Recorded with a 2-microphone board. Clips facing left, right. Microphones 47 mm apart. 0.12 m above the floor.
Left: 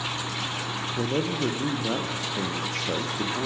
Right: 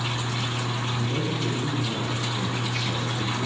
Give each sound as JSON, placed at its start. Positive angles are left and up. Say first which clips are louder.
{"t": 1.0, "sound": "a man speaking", "louder": "left 5 dB", "side_deg": 50, "distance_m": 4.5}